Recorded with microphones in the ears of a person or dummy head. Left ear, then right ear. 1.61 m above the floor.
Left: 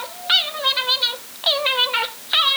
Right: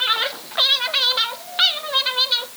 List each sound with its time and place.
Only background noise.